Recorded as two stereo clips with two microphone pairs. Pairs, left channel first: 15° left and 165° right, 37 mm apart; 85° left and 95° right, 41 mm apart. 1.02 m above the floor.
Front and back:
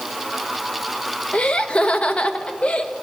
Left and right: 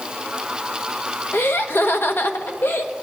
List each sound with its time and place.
1.3 s laughter: 70° left, 0.9 m